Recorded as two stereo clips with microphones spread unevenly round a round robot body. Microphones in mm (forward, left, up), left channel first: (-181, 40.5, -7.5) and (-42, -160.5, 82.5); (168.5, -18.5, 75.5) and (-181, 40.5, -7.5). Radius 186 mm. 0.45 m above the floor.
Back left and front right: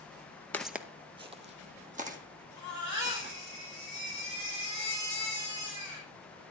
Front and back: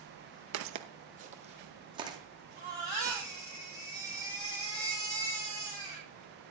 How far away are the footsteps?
About 0.6 m.